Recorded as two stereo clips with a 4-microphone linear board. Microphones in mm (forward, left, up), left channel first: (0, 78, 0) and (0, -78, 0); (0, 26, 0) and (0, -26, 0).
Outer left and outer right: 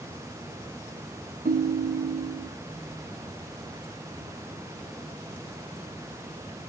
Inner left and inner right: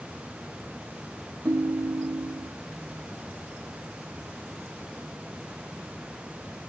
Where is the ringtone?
65° right (ahead or behind), 0.5 m.